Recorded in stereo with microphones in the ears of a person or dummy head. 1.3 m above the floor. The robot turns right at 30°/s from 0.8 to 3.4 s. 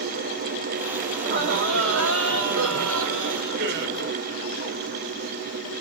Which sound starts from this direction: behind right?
Laughter, at 1.1 s.